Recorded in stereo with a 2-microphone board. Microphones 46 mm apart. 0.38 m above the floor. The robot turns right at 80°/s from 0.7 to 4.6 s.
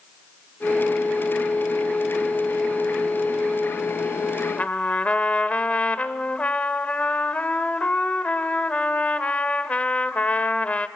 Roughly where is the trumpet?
Left.